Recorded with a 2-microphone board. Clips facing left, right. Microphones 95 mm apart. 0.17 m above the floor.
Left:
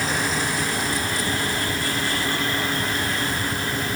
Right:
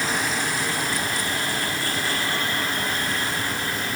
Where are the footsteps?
No footsteps in this recording.